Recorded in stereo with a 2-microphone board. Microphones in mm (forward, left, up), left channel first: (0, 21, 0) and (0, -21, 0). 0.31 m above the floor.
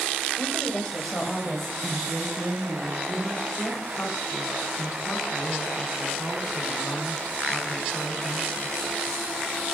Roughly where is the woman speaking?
Centre.